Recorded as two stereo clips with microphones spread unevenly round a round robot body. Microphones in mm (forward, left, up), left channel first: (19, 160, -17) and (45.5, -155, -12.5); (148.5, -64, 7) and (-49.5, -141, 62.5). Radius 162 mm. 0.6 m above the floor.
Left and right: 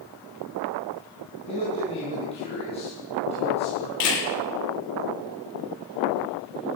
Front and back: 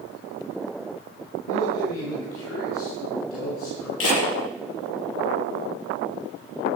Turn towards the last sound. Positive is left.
turn(degrees=65)